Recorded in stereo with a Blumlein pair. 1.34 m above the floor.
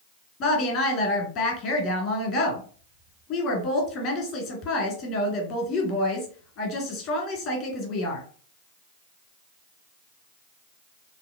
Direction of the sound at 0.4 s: 40° left.